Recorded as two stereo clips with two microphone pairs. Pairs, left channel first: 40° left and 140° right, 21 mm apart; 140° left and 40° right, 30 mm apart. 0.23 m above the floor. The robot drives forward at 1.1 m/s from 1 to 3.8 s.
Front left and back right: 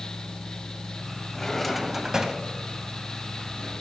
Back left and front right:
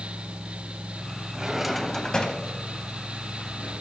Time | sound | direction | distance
1.3 | a drawer | 5° right | 0.8 m